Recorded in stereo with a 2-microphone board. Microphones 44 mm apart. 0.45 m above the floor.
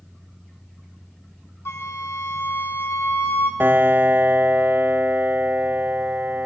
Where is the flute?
75° left (ahead or behind), 3.5 m.